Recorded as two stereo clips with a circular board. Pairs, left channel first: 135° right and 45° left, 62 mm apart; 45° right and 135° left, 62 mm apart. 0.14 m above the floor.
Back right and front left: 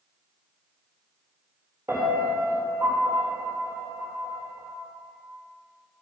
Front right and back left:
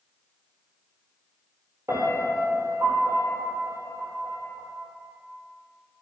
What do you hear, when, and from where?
1.9 s a piano: 95° left, 4 m